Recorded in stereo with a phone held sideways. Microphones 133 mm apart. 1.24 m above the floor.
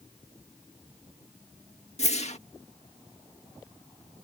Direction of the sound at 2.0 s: 55° left (ahead or behind).